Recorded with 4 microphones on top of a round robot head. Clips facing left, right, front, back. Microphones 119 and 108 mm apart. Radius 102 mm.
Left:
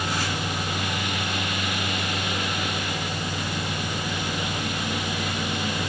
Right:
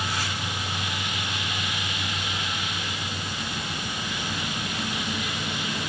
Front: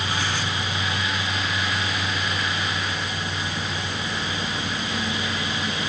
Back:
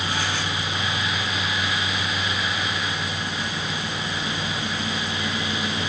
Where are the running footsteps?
No running footsteps in this recording.